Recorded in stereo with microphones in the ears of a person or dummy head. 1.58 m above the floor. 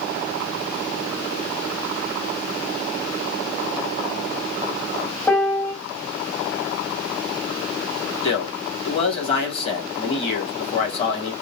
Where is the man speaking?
35° left (ahead or behind), 2.5 m.